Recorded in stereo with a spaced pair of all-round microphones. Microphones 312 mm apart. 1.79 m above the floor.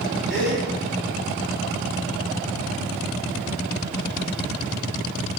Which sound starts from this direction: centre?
A gasp, at 0.3 s.